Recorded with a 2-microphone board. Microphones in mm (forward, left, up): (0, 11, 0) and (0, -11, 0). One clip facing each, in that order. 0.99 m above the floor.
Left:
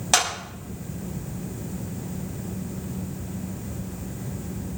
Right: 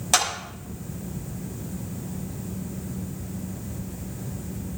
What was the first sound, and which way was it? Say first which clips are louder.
A clap: left 1 dB; 10° left (ahead or behind).